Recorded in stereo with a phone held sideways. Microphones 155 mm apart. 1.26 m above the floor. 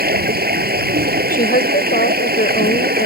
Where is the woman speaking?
75° left (ahead or behind).